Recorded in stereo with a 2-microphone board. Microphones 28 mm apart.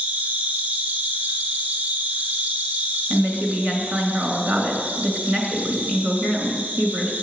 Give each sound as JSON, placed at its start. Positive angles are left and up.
{"t": 0.0, "sound": "an insect", "side_deg": -65, "distance_m": 1.9}
{"t": 3.1, "sound": "a woman speaking", "side_deg": -55, "distance_m": 2.5}